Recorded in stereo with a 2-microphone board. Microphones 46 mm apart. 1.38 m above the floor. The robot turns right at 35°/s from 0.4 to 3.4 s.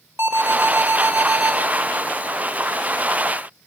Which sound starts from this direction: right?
An alarm, at 0.2 s.